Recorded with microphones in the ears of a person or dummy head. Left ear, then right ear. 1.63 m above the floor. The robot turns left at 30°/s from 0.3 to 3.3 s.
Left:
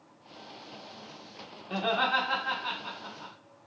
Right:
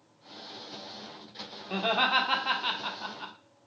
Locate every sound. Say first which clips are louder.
1.7 s laughter: right 2 dB; 5° right (ahead or behind), 0.8 m; by 3.3 s 40° right (ahead or behind), 0.8 m